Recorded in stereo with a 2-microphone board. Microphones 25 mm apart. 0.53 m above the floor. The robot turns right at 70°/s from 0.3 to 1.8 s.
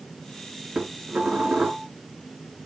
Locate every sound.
0.8 s dishes clattering: 130° right, 4 m; by 1.9 s 55° right, 4 m